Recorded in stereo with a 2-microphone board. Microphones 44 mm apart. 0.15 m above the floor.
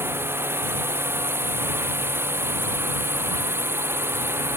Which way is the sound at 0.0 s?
65° right (ahead or behind).